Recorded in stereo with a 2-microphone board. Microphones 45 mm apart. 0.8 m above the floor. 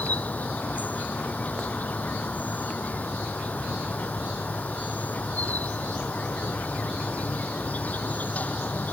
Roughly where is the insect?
Left.